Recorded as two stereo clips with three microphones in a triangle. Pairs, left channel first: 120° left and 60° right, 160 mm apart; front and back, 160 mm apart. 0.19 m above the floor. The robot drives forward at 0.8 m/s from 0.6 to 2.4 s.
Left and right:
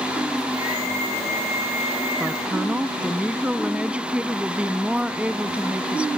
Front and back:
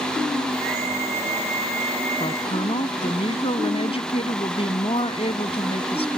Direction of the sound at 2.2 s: 15° left.